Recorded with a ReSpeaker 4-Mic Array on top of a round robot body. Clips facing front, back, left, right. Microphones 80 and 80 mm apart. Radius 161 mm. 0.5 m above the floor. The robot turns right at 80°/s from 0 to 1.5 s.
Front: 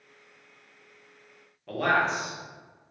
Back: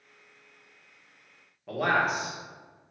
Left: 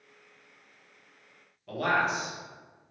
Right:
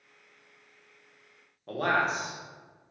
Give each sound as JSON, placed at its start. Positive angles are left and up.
{"t": 1.7, "sound": "a man speaking", "azimuth_deg": -100, "distance_m": 1.2}